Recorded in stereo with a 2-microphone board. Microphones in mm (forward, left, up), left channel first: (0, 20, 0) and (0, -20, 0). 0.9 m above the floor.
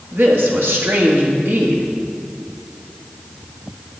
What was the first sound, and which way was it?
A woman speaking, 65° right (ahead or behind).